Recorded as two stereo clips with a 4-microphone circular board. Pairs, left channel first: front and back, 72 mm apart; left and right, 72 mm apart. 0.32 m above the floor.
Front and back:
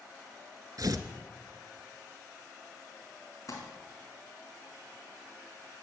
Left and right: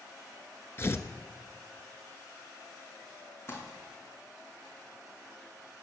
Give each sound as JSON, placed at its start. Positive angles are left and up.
{"t": 0.8, "sound": "tearing paper", "azimuth_deg": 145, "distance_m": 1.1}
{"t": 3.5, "sound": "crumpling", "azimuth_deg": 40, "distance_m": 4.0}